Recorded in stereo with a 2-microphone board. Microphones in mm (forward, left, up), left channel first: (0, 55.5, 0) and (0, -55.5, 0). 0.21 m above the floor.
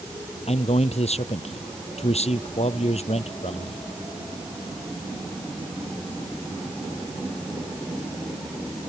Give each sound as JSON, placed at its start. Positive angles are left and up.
{"t": 0.5, "sound": "a man speaking", "side_deg": 70}